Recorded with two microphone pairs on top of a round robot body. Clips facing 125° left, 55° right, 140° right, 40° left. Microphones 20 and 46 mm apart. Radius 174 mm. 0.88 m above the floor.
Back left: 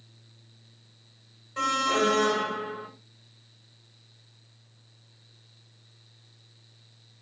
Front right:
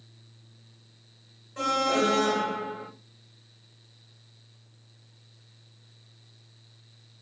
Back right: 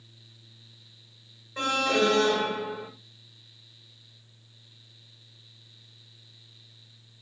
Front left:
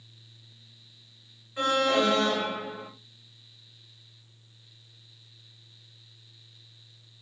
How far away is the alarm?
About 7.5 m.